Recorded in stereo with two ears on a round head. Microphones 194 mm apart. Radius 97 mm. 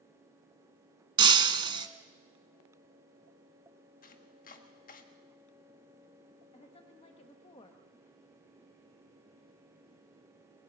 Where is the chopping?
40° left (ahead or behind), 1.5 m.